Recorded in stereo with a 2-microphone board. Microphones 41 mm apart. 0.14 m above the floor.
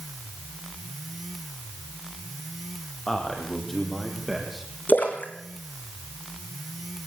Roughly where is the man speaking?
Centre.